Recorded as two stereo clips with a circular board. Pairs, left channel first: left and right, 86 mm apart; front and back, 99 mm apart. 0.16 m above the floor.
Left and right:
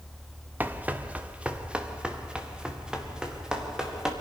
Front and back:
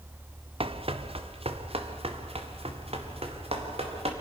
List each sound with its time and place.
0.6 s running footsteps: 160° right, 1.2 m; by 4.1 s 175° right, 3.5 m